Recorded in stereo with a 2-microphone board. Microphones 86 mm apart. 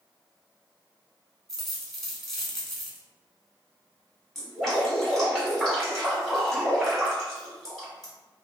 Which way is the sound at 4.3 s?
Centre (ahead or behind).